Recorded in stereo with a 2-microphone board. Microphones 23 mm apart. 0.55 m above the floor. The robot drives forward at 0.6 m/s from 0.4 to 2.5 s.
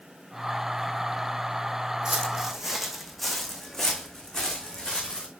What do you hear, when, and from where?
2.0 s footsteps: 30° right (ahead or behind), 1.5 m; by 5.3 s 40° left (ahead or behind), 3 m